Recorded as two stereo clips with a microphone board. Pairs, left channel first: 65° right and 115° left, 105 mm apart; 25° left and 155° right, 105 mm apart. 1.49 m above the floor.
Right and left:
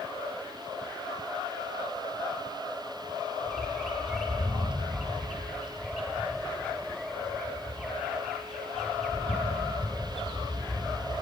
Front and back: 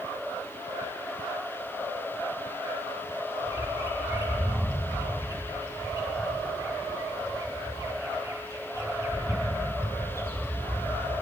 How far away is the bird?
About 1.1 m.